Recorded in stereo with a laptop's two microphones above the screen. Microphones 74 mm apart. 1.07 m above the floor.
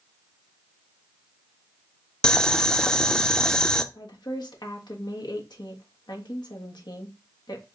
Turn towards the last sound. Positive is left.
turn(degrees=75)  # may be behind; listen again after turning